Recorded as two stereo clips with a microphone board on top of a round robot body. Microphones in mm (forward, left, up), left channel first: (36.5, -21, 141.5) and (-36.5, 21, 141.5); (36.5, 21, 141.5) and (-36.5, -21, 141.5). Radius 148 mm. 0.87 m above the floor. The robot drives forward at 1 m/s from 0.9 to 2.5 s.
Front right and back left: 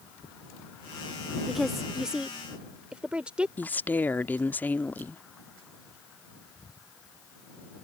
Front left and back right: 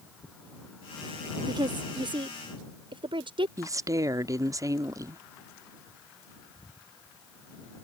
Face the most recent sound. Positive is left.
turn(degrees=-100)